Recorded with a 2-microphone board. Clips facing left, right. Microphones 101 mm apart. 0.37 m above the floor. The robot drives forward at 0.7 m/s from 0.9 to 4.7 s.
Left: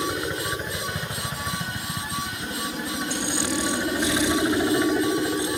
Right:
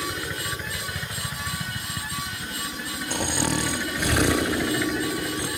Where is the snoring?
55° right (ahead or behind); by 5.5 s 60° right (ahead or behind).